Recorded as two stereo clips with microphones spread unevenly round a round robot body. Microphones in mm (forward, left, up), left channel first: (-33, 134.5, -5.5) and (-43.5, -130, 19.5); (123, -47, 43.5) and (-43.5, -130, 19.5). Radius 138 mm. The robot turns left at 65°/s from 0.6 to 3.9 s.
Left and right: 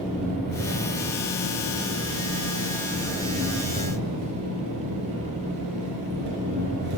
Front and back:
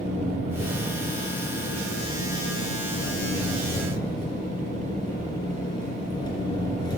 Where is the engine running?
175° left, 4 m; by 7.0 s 40° right, 4 m.